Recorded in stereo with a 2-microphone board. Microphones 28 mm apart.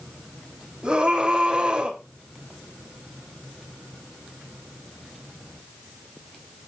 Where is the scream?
30° right (ahead or behind), 4.5 m.